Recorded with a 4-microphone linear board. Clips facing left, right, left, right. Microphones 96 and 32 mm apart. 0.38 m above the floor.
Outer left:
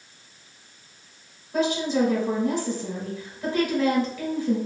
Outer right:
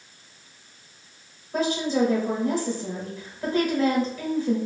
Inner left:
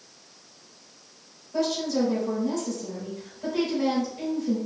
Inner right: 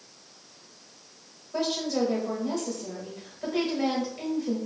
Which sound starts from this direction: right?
A woman speaking, at 1.5 s.